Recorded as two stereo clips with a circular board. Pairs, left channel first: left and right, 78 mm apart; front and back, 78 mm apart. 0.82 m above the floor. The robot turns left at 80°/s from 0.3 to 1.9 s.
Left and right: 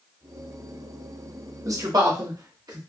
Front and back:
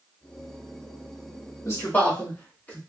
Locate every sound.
1.6 s a man speaking: 45° right, 1.3 m; by 2.8 s 65° right, 1.3 m